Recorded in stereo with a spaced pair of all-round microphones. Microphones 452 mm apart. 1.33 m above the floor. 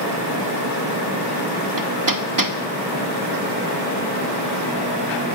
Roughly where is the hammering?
Right.